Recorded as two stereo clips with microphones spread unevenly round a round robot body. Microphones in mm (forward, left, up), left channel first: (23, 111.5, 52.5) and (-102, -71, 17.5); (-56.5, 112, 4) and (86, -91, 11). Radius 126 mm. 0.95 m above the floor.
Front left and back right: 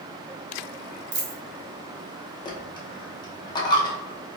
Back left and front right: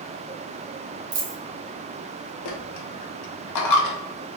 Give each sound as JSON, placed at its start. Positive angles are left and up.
{"t": 1.1, "sound": "a dropped coin", "azimuth_deg": -105, "distance_m": 0.8}
{"t": 2.5, "sound": "a dropped coin", "azimuth_deg": 125, "distance_m": 0.7}